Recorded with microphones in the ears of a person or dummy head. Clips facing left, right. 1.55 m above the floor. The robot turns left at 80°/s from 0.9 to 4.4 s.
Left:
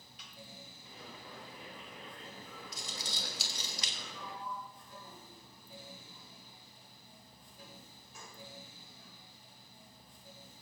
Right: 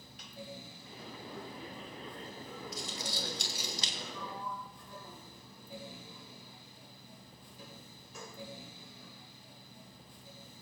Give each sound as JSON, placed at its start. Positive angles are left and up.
{"t": 0.2, "sound": "a snare drum", "side_deg": -40, "distance_m": 3.0}
{"t": 2.7, "sound": "crumpling", "side_deg": 65, "distance_m": 2.5}
{"t": 4.0, "sound": "a sliding door", "side_deg": -80, "distance_m": 1.2}